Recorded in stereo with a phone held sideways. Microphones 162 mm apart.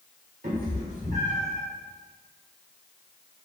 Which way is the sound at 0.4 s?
70° right (ahead or behind).